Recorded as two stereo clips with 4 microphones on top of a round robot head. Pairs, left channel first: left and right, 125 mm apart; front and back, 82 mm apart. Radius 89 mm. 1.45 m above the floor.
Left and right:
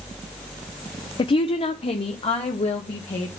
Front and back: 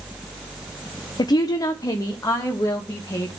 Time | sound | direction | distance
1.2 | a woman speaking | 40° left | 0.6 m